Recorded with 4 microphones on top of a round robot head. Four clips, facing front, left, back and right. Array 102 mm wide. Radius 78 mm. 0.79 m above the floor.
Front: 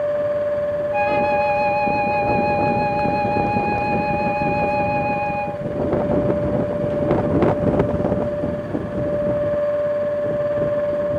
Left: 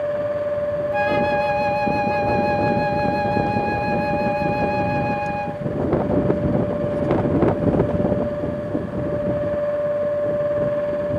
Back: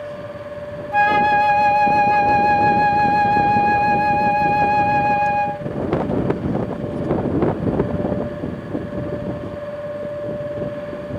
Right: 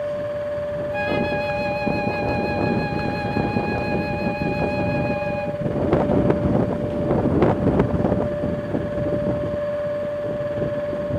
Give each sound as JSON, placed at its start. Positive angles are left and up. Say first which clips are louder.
{"t": 0.9, "sound": "a flute", "louder": "left 4 dB, back 6 dB", "azimuth_deg": 175}